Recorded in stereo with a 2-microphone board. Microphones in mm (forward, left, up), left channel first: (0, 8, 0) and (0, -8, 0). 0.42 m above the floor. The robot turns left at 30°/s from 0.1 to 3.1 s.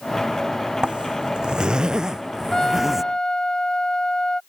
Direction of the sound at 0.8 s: 95° right.